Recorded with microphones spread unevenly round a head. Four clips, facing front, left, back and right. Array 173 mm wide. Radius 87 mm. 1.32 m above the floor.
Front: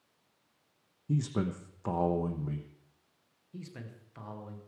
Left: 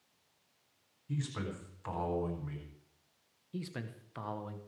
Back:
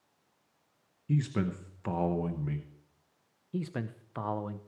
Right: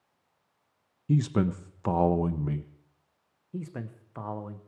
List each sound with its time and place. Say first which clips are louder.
1.1 s a man speaking: right 13 dB, back 1 dB; 80° right, 0.9 m
3.5 s a man speaking: right 4 dB, back 10 dB; 160° right, 1.0 m